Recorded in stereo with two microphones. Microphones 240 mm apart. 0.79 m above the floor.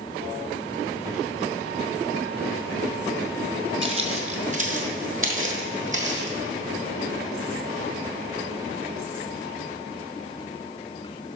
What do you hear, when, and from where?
3.8 s footsteps: 25° right (ahead or behind), 0.9 m; by 6.4 s 30° right (ahead or behind), 1.4 m